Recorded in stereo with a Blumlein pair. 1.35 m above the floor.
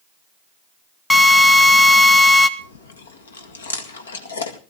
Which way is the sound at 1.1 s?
10° left.